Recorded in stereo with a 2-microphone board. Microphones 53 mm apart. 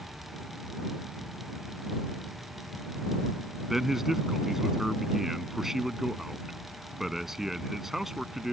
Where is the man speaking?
5° right (ahead or behind).